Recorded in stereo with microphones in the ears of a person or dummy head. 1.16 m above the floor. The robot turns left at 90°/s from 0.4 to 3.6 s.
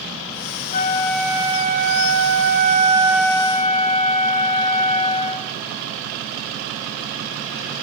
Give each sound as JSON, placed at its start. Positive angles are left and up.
{"t": 0.7, "sound": "a flute", "azimuth_deg": 45, "distance_m": 1.7}